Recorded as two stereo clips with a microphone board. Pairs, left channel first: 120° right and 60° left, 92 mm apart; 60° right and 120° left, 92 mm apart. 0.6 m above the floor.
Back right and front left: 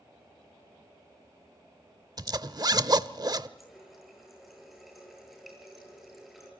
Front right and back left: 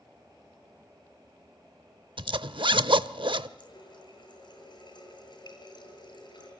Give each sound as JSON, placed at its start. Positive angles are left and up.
{"t": 2.2, "sound": "a zipper", "azimuth_deg": 100, "distance_m": 0.7}
{"t": 3.6, "sound": "a running tap", "azimuth_deg": -30, "distance_m": 7.5}